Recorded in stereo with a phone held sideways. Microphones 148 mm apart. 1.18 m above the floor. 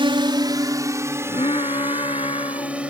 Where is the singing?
45° left (ahead or behind).